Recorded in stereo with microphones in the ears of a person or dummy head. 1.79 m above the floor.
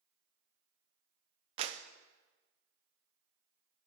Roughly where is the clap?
Right.